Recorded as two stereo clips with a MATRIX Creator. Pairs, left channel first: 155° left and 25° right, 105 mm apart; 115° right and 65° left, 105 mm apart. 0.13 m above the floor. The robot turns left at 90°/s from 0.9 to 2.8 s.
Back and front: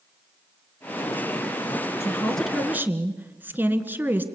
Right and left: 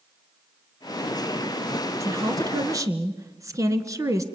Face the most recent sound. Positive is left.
turn(degrees=40)